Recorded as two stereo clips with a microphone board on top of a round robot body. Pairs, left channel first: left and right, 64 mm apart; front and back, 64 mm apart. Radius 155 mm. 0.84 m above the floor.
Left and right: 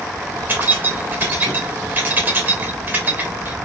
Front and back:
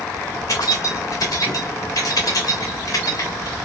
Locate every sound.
0.5 s keys jangling: 25° right, 1.5 m